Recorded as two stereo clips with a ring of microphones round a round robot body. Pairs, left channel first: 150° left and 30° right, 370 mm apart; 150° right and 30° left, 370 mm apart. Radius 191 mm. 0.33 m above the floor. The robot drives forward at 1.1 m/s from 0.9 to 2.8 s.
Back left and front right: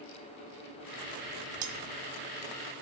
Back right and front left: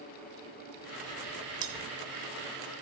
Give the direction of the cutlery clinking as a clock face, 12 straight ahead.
12 o'clock.